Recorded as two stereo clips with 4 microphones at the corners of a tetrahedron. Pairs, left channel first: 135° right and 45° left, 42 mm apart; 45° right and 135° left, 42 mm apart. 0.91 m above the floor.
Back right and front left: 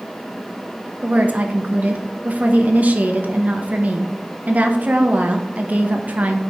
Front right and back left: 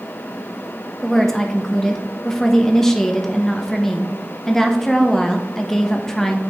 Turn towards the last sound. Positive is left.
turn(degrees=30)